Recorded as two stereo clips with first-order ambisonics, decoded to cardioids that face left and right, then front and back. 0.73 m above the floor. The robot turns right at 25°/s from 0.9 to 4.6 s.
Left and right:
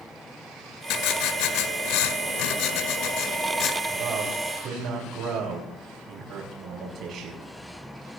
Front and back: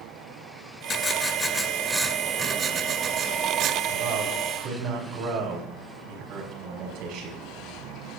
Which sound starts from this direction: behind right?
A man speaking, at 3.9 s.